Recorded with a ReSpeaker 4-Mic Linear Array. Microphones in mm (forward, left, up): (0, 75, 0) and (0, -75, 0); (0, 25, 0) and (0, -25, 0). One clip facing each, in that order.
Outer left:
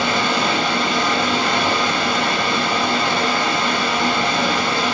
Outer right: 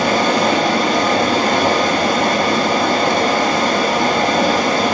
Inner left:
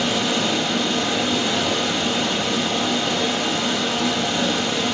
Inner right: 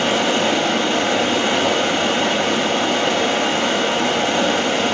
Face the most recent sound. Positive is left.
turn(degrees=-45)  # may be behind; listen again after turning